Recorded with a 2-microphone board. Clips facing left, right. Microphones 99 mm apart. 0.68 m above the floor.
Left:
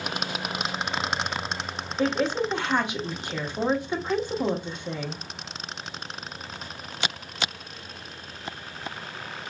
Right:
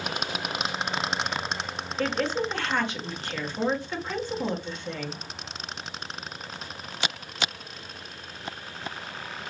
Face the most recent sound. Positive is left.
turn(degrees=15)  # may be behind; listen again after turning